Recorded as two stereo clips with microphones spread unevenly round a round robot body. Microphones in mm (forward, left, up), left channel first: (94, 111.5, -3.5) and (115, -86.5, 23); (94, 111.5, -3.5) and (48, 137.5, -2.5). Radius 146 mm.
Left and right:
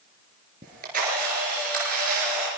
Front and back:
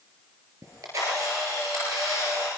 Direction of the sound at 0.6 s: 150° right.